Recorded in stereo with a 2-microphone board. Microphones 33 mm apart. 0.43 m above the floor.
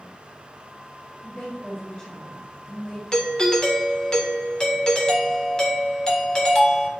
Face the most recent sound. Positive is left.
turn(degrees=20)  # may be behind; listen again after turning